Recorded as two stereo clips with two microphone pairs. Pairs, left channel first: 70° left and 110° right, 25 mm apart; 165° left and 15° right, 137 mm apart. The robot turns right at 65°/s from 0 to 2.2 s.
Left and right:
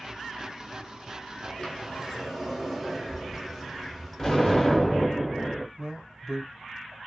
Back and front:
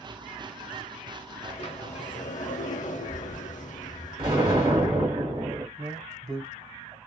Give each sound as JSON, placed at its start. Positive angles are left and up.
{"t": 1.4, "sound": "a sliding door", "azimuth_deg": 115, "distance_m": 0.7}
{"t": 4.2, "sound": "an explosion", "azimuth_deg": 5, "distance_m": 1.7}
{"t": 5.8, "sound": "a man speaking", "azimuth_deg": -40, "distance_m": 1.3}